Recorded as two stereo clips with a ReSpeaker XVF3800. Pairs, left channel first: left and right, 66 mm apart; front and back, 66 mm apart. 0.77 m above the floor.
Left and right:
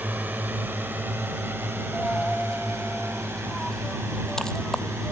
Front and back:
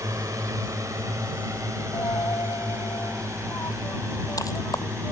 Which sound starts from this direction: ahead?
A dropped coin, at 1.9 s.